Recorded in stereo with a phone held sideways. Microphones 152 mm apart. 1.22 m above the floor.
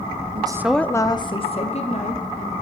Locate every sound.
0.3 s a woman speaking: 35° right (ahead or behind), 0.5 m; by 2.5 s 50° left (ahead or behind), 2 m